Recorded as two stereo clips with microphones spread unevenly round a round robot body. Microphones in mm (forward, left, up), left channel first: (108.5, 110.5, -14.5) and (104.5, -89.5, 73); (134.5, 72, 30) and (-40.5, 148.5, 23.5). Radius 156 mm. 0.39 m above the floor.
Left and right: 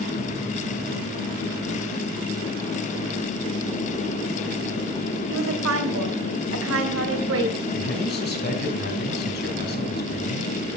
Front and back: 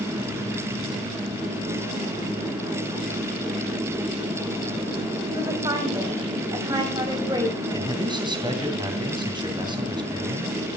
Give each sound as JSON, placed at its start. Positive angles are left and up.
{"t": 5.3, "sound": "a woman speaking", "azimuth_deg": -130, "distance_m": 2.5}
{"t": 7.7, "sound": "a man speaking", "azimuth_deg": 90, "distance_m": 3.0}